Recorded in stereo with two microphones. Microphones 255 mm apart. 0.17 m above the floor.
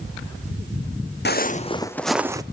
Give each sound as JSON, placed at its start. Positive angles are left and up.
{"t": 1.2, "sound": "footsteps", "side_deg": 45, "distance_m": 0.7}